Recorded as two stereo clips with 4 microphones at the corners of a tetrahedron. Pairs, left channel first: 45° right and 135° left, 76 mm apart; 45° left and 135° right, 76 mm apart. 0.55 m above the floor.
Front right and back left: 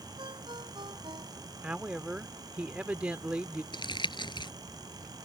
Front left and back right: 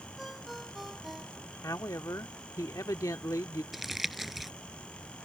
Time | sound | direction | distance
0.2 | a ringtone | 140° left | ?
1.6 | a woman speaking | 70° left | ?
3.7 | crumpling | 45° right | ?